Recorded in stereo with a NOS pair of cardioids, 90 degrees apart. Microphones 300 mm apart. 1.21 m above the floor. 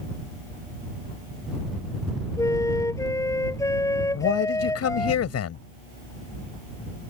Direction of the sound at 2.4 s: 10° left.